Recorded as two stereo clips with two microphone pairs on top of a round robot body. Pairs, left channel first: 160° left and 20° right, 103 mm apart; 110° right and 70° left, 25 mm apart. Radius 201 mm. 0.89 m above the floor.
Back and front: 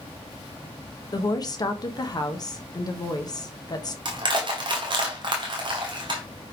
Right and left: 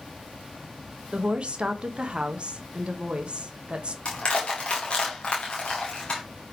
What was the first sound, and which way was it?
A woman speaking, 110° left.